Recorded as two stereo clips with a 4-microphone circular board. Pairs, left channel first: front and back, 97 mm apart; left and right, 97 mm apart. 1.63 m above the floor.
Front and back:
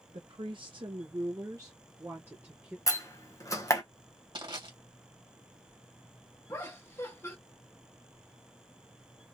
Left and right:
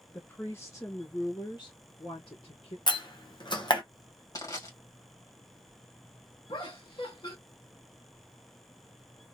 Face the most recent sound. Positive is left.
turn(degrees=60)